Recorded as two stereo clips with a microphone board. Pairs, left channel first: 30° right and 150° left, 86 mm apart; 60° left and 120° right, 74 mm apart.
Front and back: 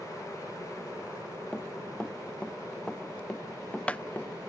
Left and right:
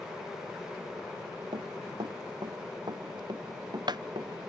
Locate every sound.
1.5 s running footsteps: 110° right; by 4.5 s 105° right